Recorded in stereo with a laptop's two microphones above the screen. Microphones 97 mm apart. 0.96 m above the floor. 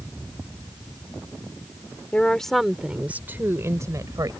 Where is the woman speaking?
15° left (ahead or behind); by 4.3 s 40° right (ahead or behind).